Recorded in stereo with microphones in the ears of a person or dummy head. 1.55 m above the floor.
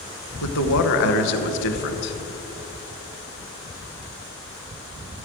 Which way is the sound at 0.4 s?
65° left (ahead or behind).